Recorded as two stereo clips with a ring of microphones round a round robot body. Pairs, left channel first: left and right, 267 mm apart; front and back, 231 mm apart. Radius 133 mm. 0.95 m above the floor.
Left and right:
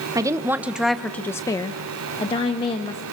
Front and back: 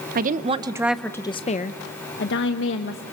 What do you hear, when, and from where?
0.1 s a woman speaking: 160° right, 0.8 m; by 3.0 s 20° left, 1.5 m